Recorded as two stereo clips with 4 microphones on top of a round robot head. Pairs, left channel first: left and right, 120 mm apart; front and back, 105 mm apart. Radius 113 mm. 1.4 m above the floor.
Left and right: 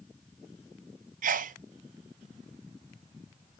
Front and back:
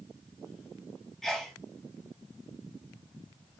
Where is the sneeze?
90° right, 0.6 m.